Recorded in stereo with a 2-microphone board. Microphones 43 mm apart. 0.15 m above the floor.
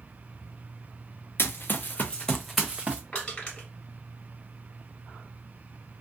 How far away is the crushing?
About 1.5 m.